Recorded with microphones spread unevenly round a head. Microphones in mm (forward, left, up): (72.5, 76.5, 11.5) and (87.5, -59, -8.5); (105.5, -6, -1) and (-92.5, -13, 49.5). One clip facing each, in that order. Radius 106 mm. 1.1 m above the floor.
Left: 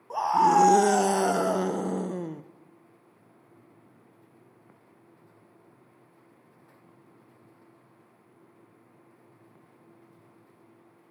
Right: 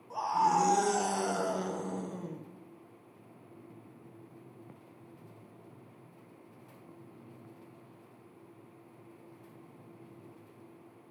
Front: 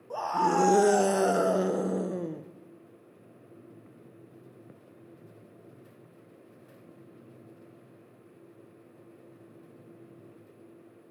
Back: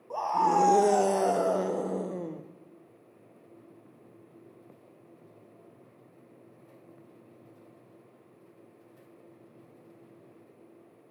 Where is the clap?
I don't hear a clap.